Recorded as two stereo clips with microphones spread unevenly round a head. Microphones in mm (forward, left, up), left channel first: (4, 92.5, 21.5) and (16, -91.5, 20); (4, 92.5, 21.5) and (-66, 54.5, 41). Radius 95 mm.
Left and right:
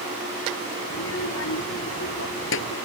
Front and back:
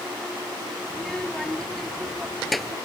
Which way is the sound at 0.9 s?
110° left.